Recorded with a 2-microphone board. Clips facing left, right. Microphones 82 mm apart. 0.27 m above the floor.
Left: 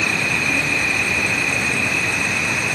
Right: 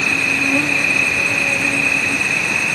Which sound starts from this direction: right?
An insect, at 0.0 s.